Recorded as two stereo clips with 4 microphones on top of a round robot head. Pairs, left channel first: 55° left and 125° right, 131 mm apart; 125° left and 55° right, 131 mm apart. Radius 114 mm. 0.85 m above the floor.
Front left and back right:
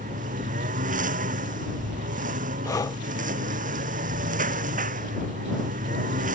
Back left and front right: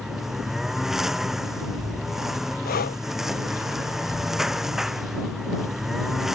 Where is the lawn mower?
145° right.